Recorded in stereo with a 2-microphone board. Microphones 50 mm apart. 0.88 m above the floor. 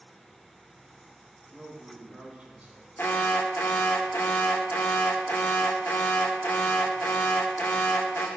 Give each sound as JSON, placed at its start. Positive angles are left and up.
{"t": 1.5, "sound": "a man speaking", "side_deg": 5, "distance_m": 4.5}
{"t": 3.0, "sound": "an alarm", "side_deg": 40, "distance_m": 1.5}